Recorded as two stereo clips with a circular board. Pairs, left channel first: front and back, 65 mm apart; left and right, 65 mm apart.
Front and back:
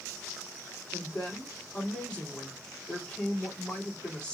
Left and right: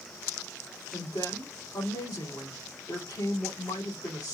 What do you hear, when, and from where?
0.9 s a woman speaking: 75° left, 3 m